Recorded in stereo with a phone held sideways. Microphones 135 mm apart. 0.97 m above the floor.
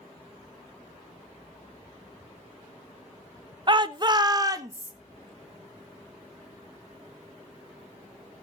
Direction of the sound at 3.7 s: 35° right (ahead or behind).